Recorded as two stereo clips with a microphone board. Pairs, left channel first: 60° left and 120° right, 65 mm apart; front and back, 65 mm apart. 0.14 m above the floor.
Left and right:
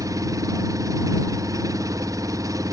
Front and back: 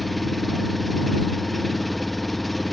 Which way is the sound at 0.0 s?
90° right.